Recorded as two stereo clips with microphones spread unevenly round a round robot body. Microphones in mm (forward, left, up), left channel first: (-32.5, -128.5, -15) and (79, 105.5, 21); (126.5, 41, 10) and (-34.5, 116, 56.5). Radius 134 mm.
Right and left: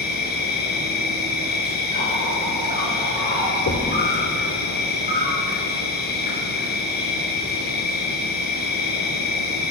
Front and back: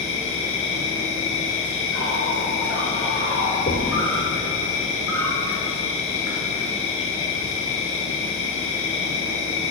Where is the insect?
60° right, 2 m.